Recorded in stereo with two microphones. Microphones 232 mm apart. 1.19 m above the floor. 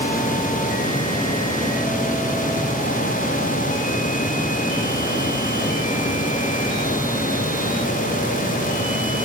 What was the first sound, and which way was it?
Only background noise.